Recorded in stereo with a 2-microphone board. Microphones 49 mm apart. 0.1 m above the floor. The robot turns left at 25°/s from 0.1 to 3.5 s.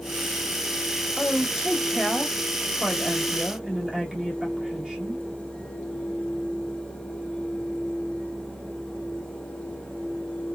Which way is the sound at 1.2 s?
5° right (ahead or behind).